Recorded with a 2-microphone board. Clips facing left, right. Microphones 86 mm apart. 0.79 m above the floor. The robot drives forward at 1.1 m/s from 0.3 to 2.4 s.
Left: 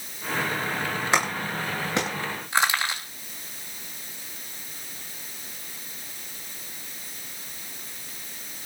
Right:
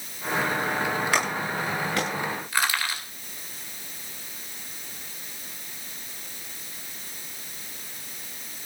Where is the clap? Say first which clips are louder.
Even; 25° left (ahead or behind), 9 m; by 2.1 s 20° left (ahead or behind), 10 m.